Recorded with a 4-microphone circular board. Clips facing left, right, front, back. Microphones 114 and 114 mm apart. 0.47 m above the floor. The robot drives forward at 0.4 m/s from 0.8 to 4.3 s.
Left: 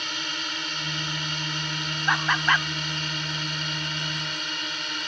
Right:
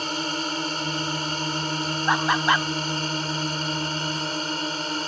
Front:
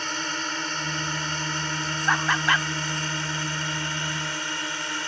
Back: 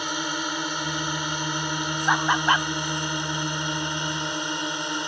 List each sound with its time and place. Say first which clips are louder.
0.0 s a drone: right 7 dB, back 2 dB; 110° right; by 5.1 s 120° right
2.1 s laughter: right 2 dB, back 2 dB; 120° right; by 2.7 s 150° right